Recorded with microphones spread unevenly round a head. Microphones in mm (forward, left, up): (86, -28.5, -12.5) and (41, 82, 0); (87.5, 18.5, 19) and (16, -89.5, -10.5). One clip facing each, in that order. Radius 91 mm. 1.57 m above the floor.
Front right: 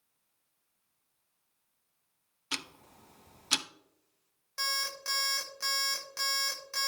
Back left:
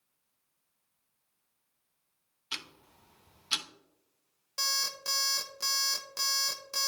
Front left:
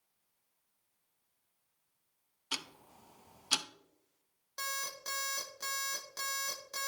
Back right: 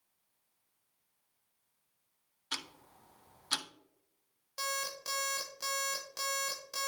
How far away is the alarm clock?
About 0.7 m.